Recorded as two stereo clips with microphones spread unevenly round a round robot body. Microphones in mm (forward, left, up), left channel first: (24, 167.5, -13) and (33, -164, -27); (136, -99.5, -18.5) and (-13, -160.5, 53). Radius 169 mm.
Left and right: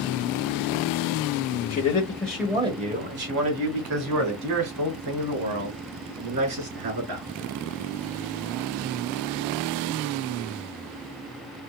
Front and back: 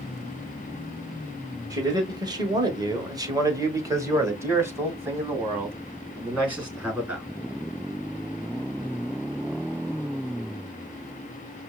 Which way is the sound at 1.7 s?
100° left.